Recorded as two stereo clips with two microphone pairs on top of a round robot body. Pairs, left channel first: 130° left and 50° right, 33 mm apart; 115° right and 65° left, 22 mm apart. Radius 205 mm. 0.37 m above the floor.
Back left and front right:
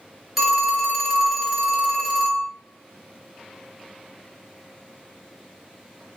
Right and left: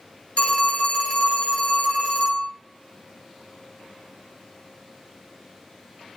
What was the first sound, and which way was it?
A phone ringing, 135° right.